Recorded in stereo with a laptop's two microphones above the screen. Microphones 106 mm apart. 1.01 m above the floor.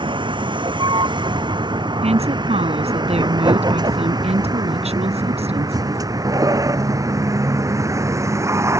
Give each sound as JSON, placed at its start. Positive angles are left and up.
{"t": 0.0, "sound": "a vehicle", "side_deg": -50}
{"t": 2.0, "sound": "a woman speaking", "side_deg": -80}